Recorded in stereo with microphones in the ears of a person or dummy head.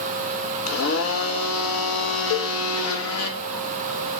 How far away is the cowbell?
About 1.7 m.